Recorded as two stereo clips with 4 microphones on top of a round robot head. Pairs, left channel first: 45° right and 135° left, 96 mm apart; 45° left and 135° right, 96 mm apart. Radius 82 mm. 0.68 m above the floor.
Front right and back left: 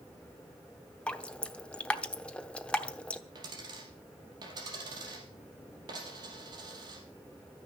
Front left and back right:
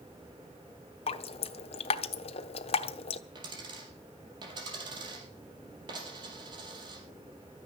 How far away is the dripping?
About 0.9 m.